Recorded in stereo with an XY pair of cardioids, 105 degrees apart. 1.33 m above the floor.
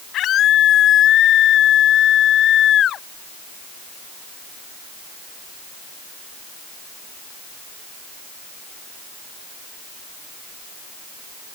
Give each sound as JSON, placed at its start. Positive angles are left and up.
{"t": 0.1, "sound": "a scream", "azimuth_deg": 70}